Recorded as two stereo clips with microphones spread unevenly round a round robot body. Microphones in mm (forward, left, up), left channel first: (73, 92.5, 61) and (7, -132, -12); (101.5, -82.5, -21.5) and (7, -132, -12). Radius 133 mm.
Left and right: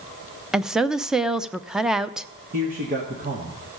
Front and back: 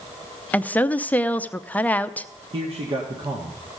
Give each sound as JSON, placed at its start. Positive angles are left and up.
{"t": 0.5, "sound": "a woman speaking", "azimuth_deg": -40, "distance_m": 0.6}
{"t": 2.5, "sound": "a man speaking", "azimuth_deg": -130, "distance_m": 1.6}